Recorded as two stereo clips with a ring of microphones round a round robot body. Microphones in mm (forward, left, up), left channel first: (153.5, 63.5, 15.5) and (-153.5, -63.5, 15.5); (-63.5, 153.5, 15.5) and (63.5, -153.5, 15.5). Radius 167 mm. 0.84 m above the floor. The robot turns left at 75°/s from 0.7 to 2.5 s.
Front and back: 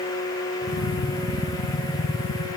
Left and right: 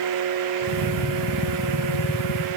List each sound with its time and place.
Only background noise.